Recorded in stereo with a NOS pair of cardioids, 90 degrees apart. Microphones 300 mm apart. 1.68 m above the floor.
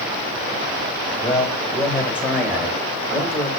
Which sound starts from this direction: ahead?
A man speaking, at 1.2 s.